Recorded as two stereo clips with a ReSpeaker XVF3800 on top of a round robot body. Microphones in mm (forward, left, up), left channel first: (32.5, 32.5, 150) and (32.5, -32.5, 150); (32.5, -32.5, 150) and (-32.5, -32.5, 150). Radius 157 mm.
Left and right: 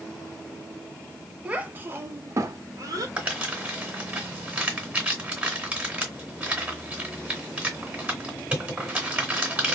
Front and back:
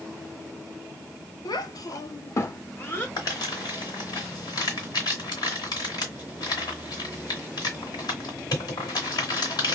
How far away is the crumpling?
About 1.9 m.